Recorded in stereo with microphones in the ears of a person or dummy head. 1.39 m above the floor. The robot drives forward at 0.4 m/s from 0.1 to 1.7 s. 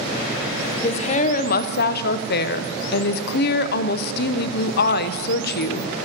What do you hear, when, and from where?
0.8 s a woman speaking: 35° left (ahead or behind), 0.7 m; by 5.9 s 60° left (ahead or behind), 0.5 m